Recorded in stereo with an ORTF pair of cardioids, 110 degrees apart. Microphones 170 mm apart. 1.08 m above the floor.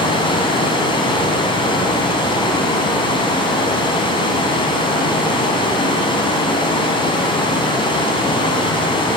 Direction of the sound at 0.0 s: 30° left.